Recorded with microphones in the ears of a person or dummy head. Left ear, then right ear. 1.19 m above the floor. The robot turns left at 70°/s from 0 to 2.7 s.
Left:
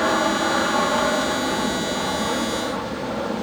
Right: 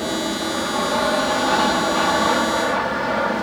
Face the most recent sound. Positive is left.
turn(degrees=-120)